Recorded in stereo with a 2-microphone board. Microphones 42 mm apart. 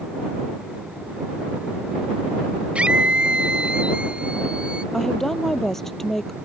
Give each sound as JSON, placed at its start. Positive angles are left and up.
{"t": 2.8, "sound": "a scream", "side_deg": -30}
{"t": 4.9, "sound": "a woman speaking", "side_deg": 10}